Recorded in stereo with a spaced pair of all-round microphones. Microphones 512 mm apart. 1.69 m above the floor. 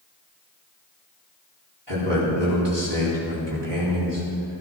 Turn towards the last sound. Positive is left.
turn(degrees=-60)  # may be behind; listen again after turning